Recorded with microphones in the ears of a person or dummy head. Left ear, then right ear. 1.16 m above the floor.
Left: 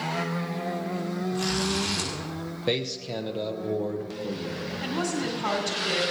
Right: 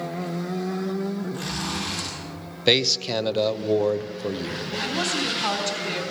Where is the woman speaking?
10° right (ahead or behind), 2.5 m.